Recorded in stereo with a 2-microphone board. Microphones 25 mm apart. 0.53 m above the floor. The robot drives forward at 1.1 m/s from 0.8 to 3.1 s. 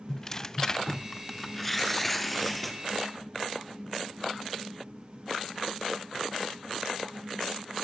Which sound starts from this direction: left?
Tearing paper, at 0.1 s.